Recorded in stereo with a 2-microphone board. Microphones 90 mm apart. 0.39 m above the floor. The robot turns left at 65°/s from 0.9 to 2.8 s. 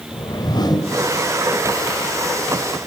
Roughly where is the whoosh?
Left.